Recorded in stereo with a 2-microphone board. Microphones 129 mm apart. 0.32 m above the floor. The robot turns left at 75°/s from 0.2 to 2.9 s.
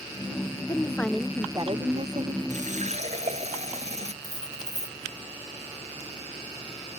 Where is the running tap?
75° right (ahead or behind); by 4.1 s 65° right (ahead or behind).